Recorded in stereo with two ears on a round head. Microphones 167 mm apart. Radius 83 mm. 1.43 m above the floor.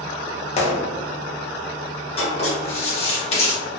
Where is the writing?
35° left (ahead or behind), 1.0 m.